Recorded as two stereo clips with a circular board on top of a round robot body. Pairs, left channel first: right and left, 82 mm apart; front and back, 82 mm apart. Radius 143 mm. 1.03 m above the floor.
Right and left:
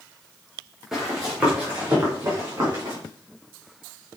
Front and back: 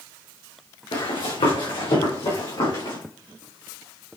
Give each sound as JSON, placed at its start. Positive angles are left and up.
{"t": 0.9, "sound": "running footsteps", "azimuth_deg": 5, "distance_m": 3.5}